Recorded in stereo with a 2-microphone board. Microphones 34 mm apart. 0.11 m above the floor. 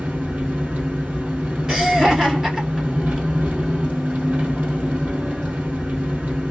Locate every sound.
0.0 s an engine running: 60° right (ahead or behind), 2 m
1.7 s laughter: 25° right (ahead or behind), 1.5 m